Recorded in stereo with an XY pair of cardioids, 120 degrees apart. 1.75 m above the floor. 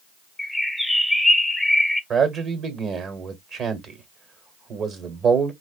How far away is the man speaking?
About 1.3 m.